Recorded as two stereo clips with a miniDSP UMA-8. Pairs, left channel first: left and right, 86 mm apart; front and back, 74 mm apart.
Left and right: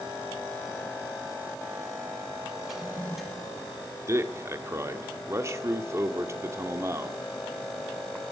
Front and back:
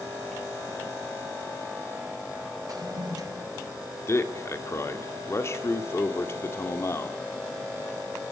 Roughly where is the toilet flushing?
Behind.